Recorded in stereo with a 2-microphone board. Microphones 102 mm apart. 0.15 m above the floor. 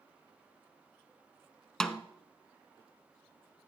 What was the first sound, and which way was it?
A snare drum, 5° left (ahead or behind).